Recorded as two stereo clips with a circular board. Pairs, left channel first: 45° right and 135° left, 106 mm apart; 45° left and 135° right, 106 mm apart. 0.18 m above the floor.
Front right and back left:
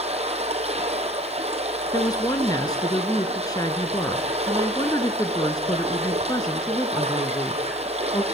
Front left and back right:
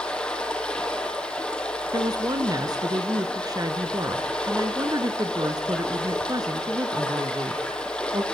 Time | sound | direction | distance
0.0 | running water | 125° left | 3 m
1.9 | a woman speaking | 90° right | 1.8 m